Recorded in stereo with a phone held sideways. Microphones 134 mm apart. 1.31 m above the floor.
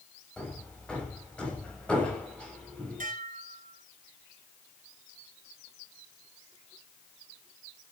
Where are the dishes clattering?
80° right, 4 m.